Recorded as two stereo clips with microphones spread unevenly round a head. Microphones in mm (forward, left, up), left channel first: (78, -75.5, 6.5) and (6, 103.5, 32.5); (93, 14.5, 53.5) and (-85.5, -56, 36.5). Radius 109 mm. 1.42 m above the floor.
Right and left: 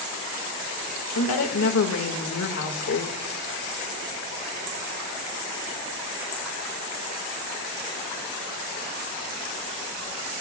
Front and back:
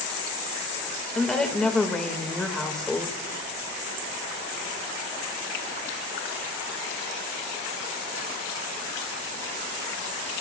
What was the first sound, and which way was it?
A woman speaking, 65° right.